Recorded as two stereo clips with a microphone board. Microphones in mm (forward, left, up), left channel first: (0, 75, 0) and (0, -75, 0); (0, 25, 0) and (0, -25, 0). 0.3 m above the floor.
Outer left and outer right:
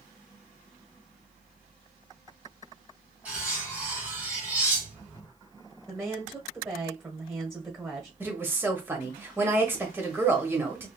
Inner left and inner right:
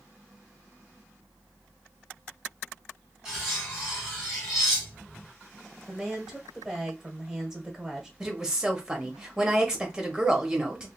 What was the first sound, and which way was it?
Cutlery clinking, 10° right (ahead or behind).